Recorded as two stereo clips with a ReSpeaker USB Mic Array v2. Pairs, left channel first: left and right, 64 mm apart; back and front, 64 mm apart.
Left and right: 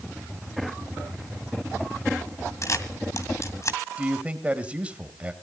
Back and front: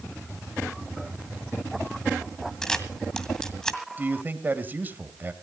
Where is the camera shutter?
100° left, 2 m.